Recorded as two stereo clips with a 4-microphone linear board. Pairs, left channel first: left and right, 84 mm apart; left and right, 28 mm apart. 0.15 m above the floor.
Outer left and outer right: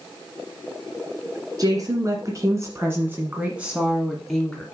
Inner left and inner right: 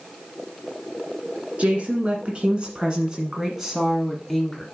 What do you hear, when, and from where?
1.6 s a woman speaking: 45° right (ahead or behind), 1.9 m; by 4.7 s 5° left (ahead or behind), 1.6 m